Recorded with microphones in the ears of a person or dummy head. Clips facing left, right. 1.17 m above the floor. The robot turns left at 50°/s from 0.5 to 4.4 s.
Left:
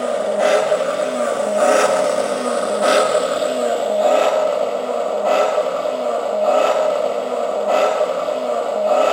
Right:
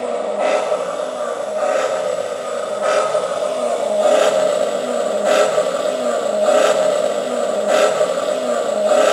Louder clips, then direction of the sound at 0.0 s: Left 2 dB; 175° left.